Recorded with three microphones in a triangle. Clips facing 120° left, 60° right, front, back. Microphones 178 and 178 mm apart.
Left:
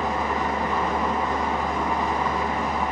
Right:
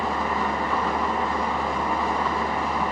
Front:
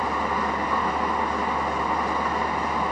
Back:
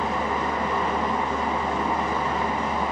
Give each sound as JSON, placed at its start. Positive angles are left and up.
{"t": 0.0, "sound": "an engine running", "azimuth_deg": 165, "distance_m": 1.3}